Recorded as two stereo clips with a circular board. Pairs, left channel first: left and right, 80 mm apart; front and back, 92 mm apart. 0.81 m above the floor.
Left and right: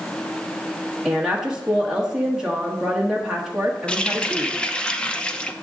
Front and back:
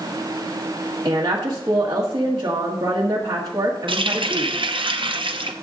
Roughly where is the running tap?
Behind.